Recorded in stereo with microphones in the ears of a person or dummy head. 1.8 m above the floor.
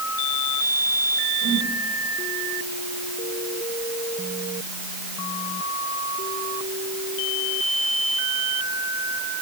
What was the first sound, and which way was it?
A whoosh, 55° right (ahead or behind).